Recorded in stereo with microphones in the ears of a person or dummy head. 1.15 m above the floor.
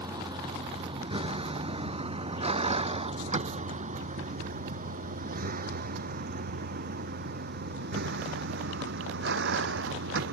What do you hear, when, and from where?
0.0 s a vehicle: 25° right (ahead or behind); by 10.3 s 65° right (ahead or behind)